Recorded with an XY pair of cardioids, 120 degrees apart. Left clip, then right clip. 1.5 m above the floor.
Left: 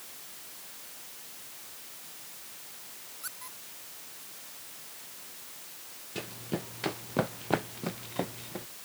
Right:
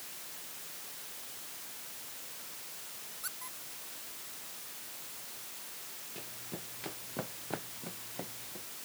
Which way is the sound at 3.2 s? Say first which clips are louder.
Left 1 dB; 5° left.